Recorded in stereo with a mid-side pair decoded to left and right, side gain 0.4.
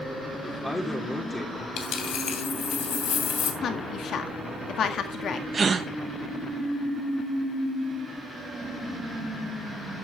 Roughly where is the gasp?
Ahead right.